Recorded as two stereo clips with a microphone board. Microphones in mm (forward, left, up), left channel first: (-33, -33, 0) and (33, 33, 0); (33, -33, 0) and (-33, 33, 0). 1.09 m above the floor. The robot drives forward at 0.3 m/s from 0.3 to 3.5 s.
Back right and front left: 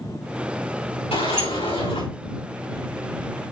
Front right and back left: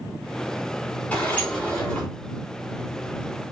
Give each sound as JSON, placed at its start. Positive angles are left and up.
{"t": 1.1, "sound": "a sliding door", "azimuth_deg": -120, "distance_m": 6.0}